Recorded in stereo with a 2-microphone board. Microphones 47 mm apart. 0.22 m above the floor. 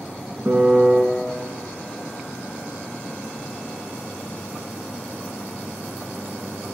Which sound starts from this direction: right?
A piano, at 0.5 s.